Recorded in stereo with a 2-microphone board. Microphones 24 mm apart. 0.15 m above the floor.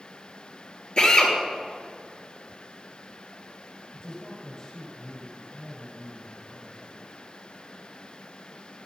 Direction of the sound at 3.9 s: 30° left (ahead or behind).